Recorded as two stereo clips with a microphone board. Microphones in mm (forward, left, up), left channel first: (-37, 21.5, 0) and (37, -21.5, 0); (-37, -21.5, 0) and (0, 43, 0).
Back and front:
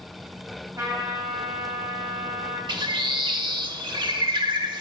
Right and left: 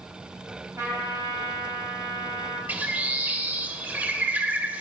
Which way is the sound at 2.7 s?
10° right.